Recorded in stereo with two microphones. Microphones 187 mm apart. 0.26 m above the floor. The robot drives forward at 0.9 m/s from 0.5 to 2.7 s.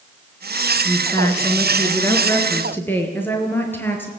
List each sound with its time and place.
0.8 s a woman speaking: 20° left (ahead or behind), 3 m; by 4.1 s 10° left (ahead or behind), 4.5 m